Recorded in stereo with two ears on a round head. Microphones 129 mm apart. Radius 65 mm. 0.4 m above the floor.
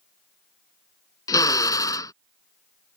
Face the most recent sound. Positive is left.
turn(degrees=25)  # may be behind; listen again after turning